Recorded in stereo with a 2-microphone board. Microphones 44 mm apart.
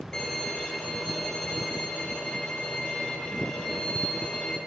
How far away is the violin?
About 1.2 m.